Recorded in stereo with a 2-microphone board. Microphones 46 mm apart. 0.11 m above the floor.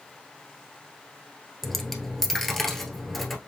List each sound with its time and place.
1.6 s a dropped coin: 5° left (ahead or behind), 1.1 m